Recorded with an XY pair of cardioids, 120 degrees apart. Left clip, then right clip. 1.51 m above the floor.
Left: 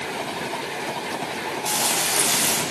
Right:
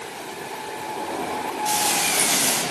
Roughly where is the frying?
Ahead.